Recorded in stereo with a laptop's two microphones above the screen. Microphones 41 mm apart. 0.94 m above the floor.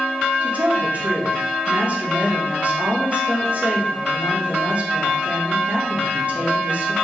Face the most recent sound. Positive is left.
turn(degrees=-35)  # may be behind; listen again after turning